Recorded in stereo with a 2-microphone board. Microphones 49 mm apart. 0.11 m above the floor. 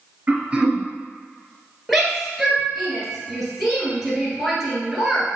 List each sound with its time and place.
0.3 s throat clearing: 20° right (ahead or behind), 1.2 m
1.9 s a shout: centre (ahead or behind), 1.7 m